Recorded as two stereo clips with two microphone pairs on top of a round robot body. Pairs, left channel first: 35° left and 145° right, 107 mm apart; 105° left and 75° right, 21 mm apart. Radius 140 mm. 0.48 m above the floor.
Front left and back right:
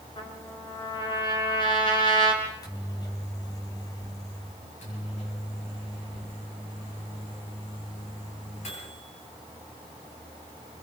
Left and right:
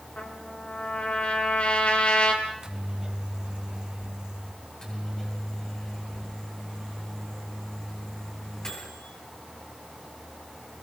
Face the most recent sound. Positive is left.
turn(degrees=45)